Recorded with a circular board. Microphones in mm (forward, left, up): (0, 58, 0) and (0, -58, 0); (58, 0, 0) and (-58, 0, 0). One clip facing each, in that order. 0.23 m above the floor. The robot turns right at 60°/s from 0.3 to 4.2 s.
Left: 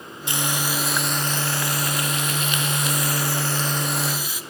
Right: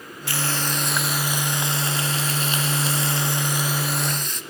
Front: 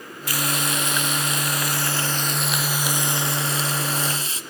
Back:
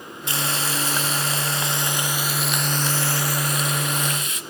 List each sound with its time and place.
0.3 s frying: 140° left, 1.4 m; by 4.4 s 15° left, 1.4 m